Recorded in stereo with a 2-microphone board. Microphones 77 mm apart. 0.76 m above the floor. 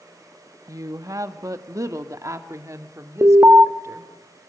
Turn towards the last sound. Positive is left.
turn(degrees=-35)  # may be behind; listen again after turning